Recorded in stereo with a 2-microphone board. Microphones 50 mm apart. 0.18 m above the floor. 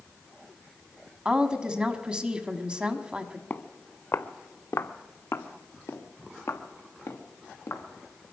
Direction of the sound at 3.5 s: 40° left (ahead or behind).